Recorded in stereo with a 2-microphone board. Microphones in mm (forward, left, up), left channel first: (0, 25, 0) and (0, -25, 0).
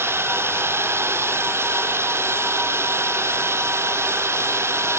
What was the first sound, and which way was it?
A drone, 55° right (ahead or behind).